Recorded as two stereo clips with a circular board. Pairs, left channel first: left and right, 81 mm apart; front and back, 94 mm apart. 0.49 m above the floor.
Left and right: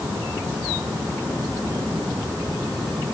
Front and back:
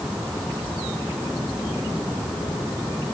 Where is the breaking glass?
I don't hear breaking glass.